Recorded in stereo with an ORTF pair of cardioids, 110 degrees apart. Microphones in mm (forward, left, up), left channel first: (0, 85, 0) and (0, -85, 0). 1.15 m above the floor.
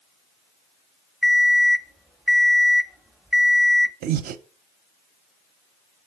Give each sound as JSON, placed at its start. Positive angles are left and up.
{"t": 1.2, "sound": "an alarm clock", "azimuth_deg": -5, "distance_m": 0.5}
{"t": 4.0, "sound": "breathing", "azimuth_deg": -65, "distance_m": 0.6}